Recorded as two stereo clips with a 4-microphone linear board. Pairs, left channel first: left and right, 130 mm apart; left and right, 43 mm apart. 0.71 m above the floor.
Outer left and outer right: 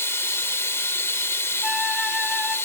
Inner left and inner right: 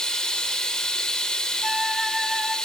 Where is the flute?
5° right (ahead or behind), 0.9 m.